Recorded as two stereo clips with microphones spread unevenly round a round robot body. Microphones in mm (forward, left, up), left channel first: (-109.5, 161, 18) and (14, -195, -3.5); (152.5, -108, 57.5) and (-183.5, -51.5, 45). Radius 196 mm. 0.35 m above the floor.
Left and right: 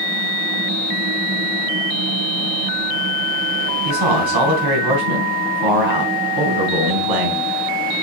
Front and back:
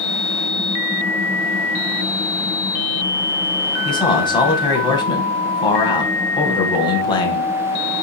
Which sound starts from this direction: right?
A man speaking, at 3.9 s.